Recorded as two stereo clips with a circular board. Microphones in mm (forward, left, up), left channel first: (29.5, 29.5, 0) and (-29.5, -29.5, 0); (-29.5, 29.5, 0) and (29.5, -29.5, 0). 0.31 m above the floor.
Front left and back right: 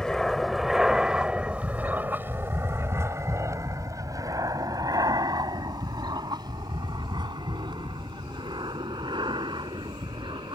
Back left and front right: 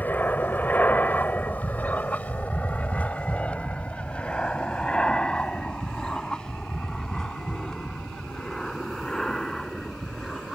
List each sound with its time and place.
0.0 s an aircraft: 115° left; by 10.6 s 140° right